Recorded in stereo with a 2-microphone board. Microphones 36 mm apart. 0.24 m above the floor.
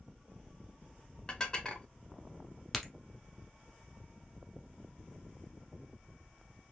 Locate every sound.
1.3 s dishes clattering: 25° left (ahead or behind), 0.9 m
2.7 s a crack: centre (ahead or behind), 0.9 m